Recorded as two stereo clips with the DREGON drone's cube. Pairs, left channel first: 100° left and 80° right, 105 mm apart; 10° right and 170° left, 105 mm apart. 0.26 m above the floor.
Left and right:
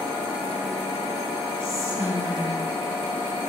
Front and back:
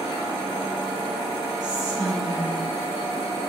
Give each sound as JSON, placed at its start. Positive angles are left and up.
{"t": 1.6, "sound": "whispering", "azimuth_deg": -145, "distance_m": 3.5}